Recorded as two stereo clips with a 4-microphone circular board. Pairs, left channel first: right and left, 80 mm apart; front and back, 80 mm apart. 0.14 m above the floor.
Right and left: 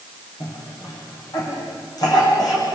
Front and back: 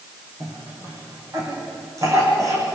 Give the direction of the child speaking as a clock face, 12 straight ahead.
No child speaking in this recording.